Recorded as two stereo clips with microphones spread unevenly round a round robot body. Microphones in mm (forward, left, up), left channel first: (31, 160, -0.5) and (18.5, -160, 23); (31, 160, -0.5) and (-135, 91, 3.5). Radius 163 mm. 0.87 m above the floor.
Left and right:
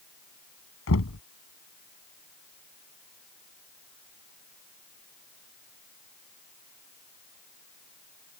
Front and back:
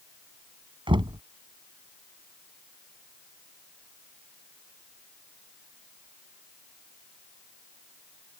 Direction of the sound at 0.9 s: 140° left.